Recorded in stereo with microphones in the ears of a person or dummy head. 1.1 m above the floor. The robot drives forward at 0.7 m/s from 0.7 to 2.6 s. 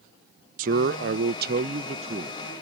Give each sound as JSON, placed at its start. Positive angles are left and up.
{"t": 0.6, "sound": "a man speaking", "side_deg": -45}